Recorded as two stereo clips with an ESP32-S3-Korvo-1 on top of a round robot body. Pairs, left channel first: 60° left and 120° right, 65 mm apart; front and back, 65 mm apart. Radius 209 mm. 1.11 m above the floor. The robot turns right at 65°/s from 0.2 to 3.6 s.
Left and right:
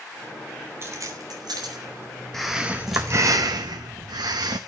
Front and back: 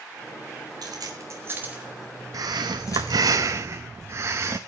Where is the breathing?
145° left, 0.5 m; by 4.6 s 135° right, 0.5 m.